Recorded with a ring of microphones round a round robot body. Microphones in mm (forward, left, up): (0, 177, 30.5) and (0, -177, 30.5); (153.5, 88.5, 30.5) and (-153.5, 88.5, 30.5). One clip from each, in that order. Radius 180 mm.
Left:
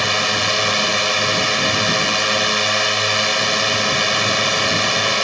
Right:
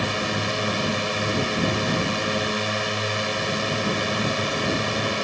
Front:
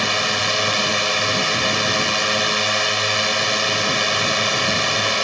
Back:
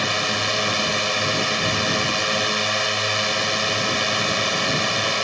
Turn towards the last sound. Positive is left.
turn(degrees=55)